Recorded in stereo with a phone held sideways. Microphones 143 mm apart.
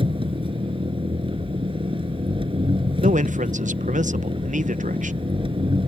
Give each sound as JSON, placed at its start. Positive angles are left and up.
{"t": 0.0, "sound": "an engine running", "side_deg": -40}
{"t": 3.0, "sound": "a man speaking", "side_deg": -60}